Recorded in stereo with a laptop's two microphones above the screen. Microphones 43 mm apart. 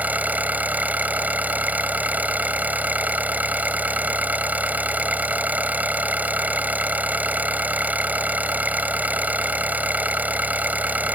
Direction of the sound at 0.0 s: 40° right (ahead or behind).